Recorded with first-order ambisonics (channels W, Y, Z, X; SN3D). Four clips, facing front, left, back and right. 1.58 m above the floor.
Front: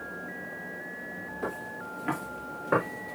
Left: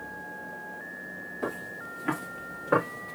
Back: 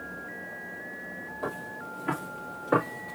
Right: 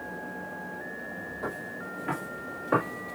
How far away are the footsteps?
About 1.9 m.